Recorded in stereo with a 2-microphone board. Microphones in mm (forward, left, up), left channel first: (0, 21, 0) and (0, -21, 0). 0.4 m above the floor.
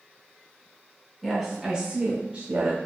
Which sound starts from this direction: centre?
A woman speaking, at 1.2 s.